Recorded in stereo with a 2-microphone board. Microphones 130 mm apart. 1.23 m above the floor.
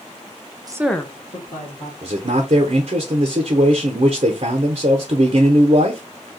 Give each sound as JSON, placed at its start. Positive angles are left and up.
{"t": 0.7, "sound": "a woman speaking", "side_deg": -30, "distance_m": 0.6}
{"t": 2.0, "sound": "a man speaking", "side_deg": -55, "distance_m": 0.6}